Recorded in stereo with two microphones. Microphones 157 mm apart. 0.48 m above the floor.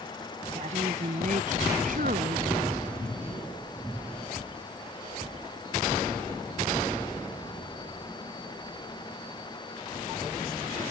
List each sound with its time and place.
0.6 s a woman speaking: 45° right (ahead or behind); by 2.5 s 70° right (ahead or behind)